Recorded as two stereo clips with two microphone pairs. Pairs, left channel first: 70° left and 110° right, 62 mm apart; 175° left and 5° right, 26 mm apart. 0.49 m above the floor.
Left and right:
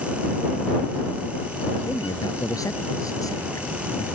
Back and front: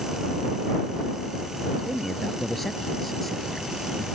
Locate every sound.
1.9 s a man speaking: 95° left